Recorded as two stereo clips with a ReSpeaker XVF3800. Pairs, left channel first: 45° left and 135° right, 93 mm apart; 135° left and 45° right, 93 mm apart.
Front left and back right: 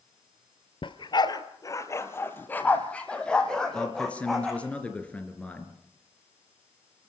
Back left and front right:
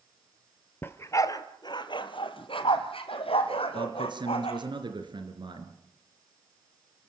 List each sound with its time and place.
0.8 s a dog barking: 70° left, 1.2 m; by 4.6 s 135° left, 3 m
3.7 s a man speaking: 30° right, 3 m